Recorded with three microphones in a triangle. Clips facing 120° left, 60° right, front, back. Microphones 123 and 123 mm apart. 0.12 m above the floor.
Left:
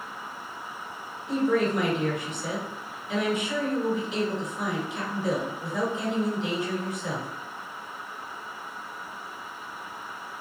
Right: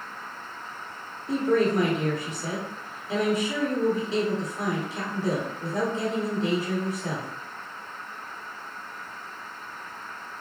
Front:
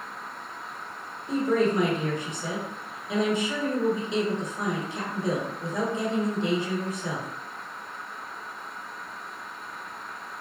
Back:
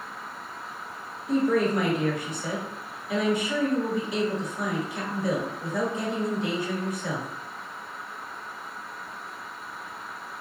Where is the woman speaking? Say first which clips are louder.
Right 1 dB, back 1 dB; 45° right, 1.3 m.